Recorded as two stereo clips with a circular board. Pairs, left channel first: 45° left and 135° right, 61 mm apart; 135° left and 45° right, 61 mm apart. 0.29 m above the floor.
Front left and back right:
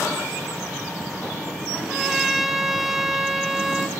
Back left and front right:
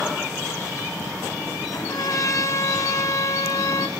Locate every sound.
1.7 s a trumpet: 145° left, 1.9 m